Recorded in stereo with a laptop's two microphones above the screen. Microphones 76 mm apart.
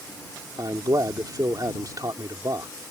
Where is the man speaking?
50° right (ahead or behind).